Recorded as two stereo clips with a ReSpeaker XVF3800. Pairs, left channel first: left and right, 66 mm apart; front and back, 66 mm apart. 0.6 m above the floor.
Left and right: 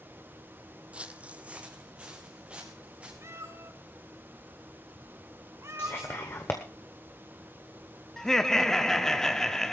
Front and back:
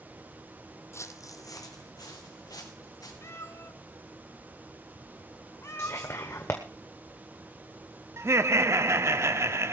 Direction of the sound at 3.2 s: 45° right.